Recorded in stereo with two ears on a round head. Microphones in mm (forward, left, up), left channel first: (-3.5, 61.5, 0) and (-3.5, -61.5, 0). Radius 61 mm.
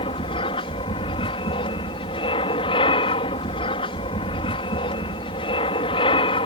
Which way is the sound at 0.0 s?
40° left (ahead or behind).